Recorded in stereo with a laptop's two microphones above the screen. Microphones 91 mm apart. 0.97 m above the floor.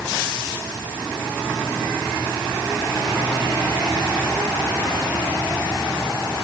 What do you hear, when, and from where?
Only background noise.